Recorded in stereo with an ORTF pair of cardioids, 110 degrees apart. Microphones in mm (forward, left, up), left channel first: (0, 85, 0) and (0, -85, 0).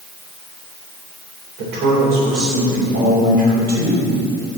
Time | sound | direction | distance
1.6 | a woman speaking | 65° right | 4 m